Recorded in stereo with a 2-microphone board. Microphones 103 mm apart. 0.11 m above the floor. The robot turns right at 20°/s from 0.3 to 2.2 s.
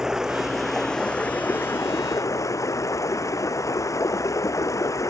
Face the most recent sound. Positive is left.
turn(degrees=30)